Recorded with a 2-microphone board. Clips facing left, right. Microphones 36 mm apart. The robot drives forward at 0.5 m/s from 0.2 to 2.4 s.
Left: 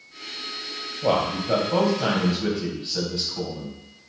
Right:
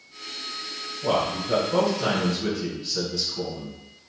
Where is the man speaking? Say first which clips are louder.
Left 2 dB; 55° left (ahead or behind), 1.9 m; by 3.8 s 40° left (ahead or behind), 2.5 m.